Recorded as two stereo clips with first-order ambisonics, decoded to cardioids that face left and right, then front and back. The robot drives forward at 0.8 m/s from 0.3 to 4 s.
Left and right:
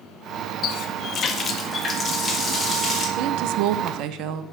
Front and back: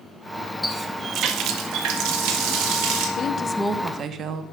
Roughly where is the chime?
I don't hear a chime.